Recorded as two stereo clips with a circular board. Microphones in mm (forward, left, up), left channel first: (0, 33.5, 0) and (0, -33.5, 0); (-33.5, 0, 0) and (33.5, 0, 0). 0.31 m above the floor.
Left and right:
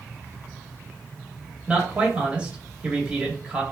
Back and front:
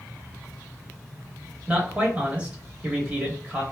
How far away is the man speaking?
About 1.0 m.